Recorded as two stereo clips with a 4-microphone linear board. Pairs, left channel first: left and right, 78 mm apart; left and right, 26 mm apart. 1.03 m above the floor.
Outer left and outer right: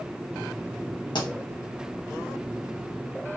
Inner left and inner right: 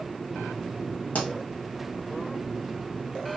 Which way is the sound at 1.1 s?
75° left (ahead or behind).